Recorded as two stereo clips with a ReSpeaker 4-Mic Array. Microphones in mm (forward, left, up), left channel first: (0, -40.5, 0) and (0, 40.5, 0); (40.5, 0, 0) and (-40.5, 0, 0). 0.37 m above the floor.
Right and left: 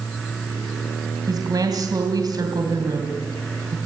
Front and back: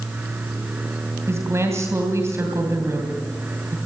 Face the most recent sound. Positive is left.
turn(degrees=125)